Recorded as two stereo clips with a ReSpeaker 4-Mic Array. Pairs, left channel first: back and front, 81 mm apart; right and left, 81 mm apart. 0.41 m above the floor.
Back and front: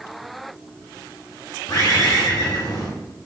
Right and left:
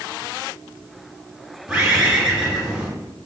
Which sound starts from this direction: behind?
A bird, at 1.7 s.